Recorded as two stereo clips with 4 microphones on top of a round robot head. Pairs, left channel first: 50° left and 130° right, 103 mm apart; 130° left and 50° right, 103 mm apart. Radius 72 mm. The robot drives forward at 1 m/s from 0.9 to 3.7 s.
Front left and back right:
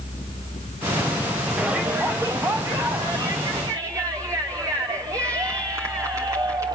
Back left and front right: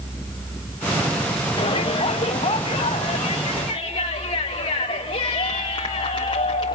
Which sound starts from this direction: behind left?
A shout, at 1.6 s.